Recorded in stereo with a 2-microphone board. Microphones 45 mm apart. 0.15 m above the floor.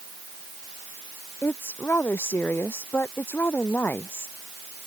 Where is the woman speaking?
55° left (ahead or behind).